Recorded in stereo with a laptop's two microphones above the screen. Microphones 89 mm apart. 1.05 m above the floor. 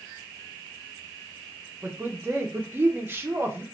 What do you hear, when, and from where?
1.8 s a woman speaking: 25° right (ahead or behind), 0.8 m